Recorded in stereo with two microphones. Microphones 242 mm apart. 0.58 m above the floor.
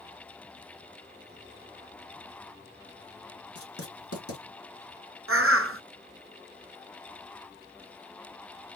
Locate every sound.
3.5 s writing: 70° left (ahead or behind), 3 m
5.3 s a bird: 65° right (ahead or behind), 0.7 m